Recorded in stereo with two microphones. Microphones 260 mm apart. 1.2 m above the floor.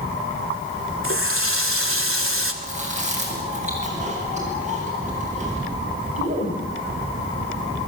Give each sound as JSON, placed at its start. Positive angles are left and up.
{"t": 1.0, "sound": "a running tap", "side_deg": -60, "distance_m": 2.5}
{"t": 2.6, "sound": "chewing", "side_deg": -30, "distance_m": 9.0}